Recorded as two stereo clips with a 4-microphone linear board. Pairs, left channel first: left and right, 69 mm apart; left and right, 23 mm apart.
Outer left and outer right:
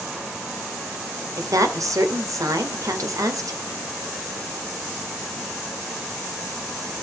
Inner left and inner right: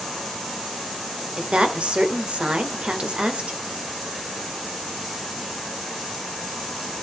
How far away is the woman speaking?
About 1.8 m.